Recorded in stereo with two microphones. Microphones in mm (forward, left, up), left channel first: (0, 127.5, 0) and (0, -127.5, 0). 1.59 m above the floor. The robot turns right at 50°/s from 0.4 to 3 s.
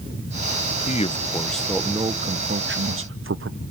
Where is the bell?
I don't hear a bell.